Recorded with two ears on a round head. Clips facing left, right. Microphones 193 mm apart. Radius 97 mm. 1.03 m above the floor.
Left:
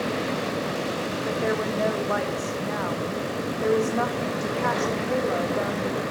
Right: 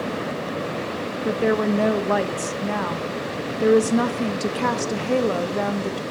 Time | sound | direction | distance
1.2 | a woman speaking | 50° right (ahead or behind) | 0.9 m